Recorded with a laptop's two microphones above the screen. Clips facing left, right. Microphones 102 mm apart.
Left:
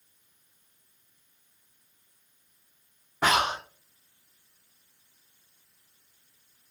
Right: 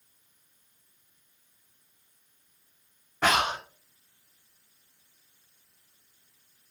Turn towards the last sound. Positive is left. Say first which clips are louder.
# even
turn(degrees=10)  # may be behind; listen again after turning